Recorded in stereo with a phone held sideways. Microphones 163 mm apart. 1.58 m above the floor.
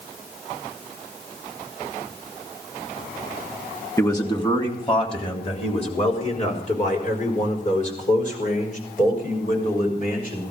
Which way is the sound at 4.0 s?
20° left (ahead or behind).